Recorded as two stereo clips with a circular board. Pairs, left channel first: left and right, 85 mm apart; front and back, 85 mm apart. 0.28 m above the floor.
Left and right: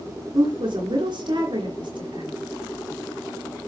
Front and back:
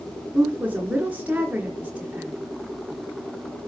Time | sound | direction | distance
0.3 | a woman speaking | 105° right | 4.5 m